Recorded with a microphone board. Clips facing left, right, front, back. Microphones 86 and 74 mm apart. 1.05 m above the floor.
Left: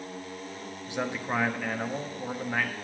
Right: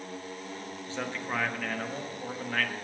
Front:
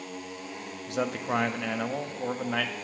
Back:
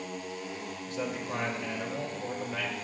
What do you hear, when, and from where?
0.9 s a man speaking: 15° left, 1.2 m